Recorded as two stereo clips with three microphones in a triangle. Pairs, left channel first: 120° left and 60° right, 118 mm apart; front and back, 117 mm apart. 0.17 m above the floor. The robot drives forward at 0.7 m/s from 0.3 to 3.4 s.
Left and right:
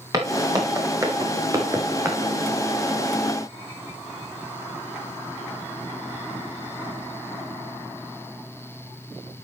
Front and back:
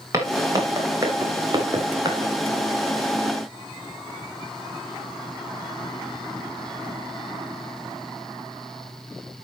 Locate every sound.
0.1 s footsteps: 115° right, 4 m; by 2.2 s 125° right, 3 m